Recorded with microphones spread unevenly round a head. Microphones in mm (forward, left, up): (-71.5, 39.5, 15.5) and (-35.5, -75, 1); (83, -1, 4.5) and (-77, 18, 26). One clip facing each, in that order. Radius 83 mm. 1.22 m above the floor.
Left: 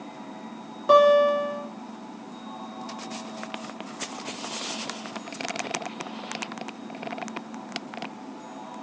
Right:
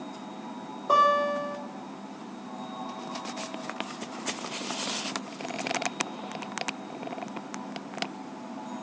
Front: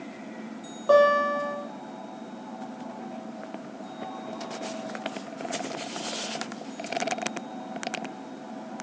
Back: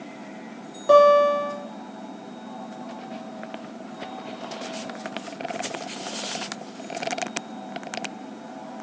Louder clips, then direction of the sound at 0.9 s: Left 7 dB, back 5 dB; 100° left.